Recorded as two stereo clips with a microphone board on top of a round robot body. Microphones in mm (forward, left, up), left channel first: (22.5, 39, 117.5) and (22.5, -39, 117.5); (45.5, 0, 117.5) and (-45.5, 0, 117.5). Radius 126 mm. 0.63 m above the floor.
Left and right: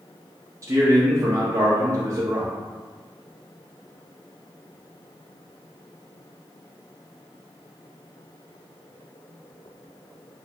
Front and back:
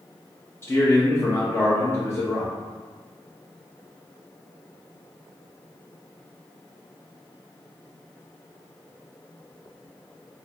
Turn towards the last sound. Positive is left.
turn(degrees=-55)